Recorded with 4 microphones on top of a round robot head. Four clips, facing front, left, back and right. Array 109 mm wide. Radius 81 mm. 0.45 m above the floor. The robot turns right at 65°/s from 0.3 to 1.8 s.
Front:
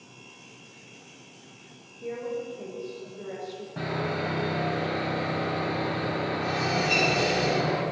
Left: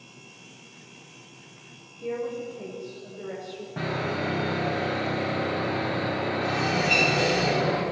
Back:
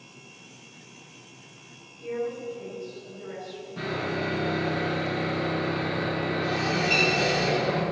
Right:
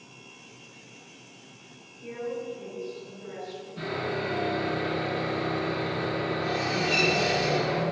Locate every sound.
2.0 s a woman speaking: 55° left, 3 m
3.8 s sawing: 55° left, 4 m